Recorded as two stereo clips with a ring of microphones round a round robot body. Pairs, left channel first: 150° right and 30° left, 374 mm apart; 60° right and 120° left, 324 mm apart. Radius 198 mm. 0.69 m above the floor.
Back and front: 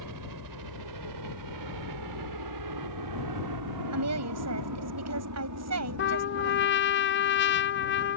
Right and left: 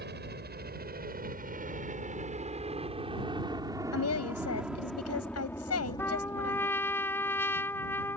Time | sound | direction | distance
0.0 | a helicopter | 65° left | ?
3.9 | a woman speaking | 20° right | ?
6.0 | a trumpet | 135° right | ?